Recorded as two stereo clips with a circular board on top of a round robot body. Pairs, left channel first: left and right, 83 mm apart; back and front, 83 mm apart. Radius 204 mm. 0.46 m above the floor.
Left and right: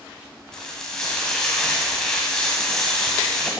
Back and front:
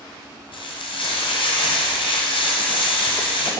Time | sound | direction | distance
0.5 | frying | 175° left | 1.5 m